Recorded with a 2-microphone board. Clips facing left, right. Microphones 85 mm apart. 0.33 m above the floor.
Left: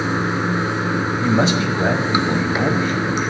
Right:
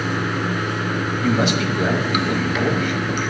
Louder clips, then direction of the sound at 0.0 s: Left 2 dB; 25° left (ahead or behind).